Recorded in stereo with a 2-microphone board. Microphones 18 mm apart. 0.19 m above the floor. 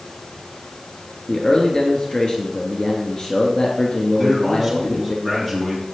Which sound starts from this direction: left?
A man speaking, at 1.3 s.